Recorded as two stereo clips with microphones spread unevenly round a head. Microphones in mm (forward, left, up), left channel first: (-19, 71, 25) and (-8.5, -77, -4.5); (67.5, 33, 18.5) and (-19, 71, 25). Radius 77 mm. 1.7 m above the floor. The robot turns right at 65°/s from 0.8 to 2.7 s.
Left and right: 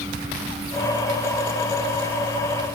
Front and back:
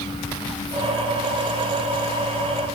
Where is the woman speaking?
I don't hear a woman speaking.